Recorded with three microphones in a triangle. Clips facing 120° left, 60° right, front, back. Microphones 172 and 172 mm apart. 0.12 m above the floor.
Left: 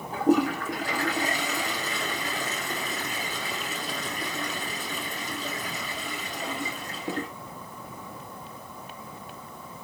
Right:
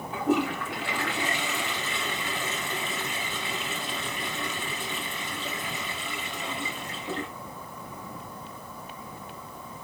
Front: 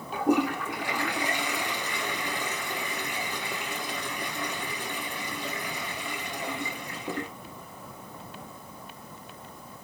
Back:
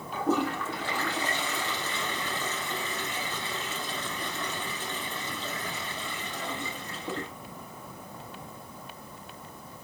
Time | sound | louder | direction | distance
0.1 | a toilet flushing | left 4 dB, front 3 dB | 75° left | 3.5 m